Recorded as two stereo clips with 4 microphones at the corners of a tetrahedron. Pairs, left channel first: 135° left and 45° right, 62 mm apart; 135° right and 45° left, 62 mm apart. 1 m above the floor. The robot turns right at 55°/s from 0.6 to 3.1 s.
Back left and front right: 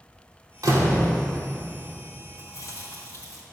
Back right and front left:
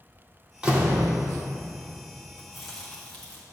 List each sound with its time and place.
0.6 s a door slam: 30° right, 1.4 m; by 1.1 s 5° right, 1.4 m
2.4 s chewing: 120° left, 1.8 m; by 3.4 s 160° left, 1.8 m